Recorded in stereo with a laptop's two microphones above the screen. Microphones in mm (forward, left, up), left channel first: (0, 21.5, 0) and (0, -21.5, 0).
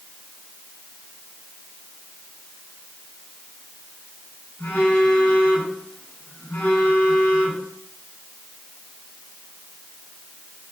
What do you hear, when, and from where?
4.6 s a phone buzzing: 60° left (ahead or behind), 4 m